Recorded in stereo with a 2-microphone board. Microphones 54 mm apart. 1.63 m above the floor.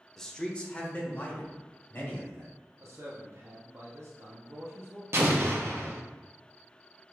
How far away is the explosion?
About 0.6 m.